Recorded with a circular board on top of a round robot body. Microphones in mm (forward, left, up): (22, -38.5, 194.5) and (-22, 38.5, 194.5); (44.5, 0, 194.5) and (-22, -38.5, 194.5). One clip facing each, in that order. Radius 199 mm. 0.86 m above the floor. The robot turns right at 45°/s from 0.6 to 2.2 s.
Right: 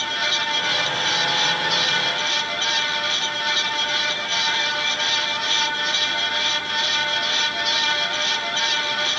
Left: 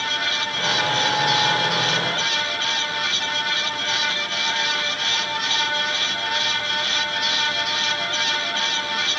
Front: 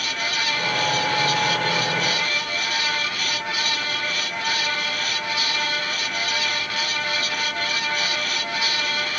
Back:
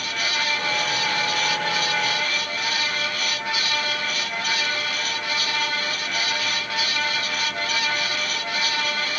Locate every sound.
Only background noise.